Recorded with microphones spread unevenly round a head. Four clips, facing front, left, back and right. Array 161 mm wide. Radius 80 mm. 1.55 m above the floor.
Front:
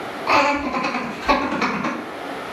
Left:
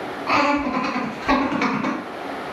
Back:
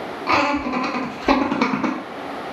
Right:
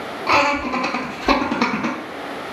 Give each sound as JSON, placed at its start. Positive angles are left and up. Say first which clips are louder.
{"t": 0.3, "sound": "laughter", "louder": "right 1 dB, front 1 dB", "azimuth_deg": -115, "distance_m": 1.6}